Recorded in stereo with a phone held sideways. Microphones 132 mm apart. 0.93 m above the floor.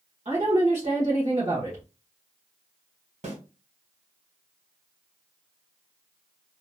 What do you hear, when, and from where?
0.2 s a woman speaking: 60° right (ahead or behind), 1.4 m
3.2 s a snare drum: 70° right (ahead or behind), 1.8 m